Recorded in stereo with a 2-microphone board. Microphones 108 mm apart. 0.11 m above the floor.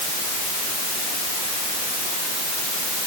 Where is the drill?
No drill in this recording.